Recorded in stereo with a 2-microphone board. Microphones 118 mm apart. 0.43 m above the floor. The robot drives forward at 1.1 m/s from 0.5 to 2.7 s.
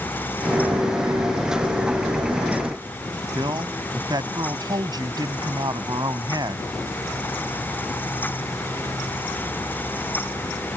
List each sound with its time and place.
3.4 s a man speaking: 35° right (ahead or behind)